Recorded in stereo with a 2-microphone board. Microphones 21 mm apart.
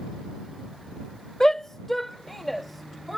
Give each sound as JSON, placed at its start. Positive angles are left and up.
{"t": 1.4, "sound": "a shout", "side_deg": 30}